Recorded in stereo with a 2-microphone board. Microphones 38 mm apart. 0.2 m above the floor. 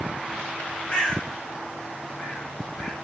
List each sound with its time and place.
0.9 s a bird: 30° left (ahead or behind), 1.2 m